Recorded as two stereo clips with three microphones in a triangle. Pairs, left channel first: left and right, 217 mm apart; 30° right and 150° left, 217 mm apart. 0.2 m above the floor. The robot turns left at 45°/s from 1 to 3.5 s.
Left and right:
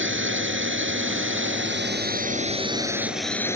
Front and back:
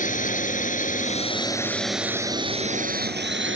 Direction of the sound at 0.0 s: 80° right.